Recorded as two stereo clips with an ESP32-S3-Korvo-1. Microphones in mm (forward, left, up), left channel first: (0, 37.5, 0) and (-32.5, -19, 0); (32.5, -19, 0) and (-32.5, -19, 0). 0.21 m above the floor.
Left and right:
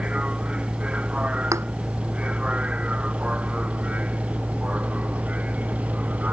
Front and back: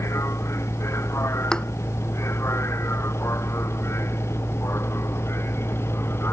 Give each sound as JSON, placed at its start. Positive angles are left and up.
{"t": 0.0, "sound": "a vehicle", "azimuth_deg": -45}
{"t": 1.5, "sound": "a thud", "azimuth_deg": -80}